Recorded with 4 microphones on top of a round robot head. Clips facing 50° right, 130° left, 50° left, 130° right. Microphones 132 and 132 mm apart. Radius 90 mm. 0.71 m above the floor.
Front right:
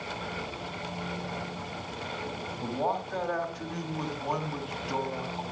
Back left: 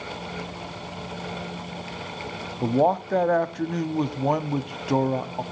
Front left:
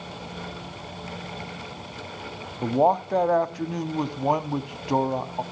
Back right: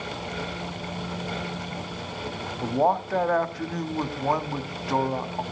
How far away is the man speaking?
About 1.2 m.